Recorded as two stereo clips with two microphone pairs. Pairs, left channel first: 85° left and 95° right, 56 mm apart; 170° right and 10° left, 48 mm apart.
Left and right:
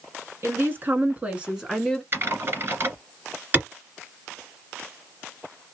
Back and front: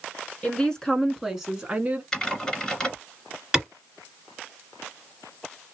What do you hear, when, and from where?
0.4 s a woman speaking: 105° right, 1.5 m; by 2.0 s straight ahead, 1.3 m
2.1 s typing on a keyboard: 95° right, 1.8 m
3.5 s a clap: 60° right, 1.8 m